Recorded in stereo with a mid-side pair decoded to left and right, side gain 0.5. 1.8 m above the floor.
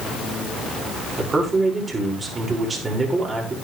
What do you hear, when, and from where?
1.2 s a man speaking: 30° right, 6 m